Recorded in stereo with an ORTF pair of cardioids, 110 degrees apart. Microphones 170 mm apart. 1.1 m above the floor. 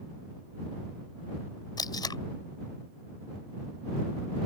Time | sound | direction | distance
1.8 | tape being pulled | 25° left | ?